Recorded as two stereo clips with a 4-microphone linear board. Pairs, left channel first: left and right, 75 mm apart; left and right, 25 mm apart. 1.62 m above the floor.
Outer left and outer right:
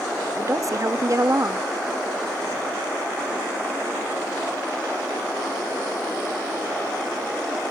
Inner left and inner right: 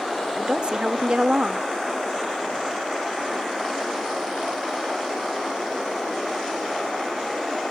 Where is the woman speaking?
45° right (ahead or behind), 0.8 m.